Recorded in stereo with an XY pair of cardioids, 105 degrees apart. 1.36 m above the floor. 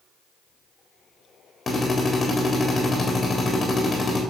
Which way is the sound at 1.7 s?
30° left.